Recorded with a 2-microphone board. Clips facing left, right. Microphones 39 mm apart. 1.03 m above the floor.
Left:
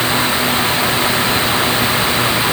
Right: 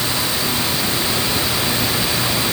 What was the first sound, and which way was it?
Only background noise.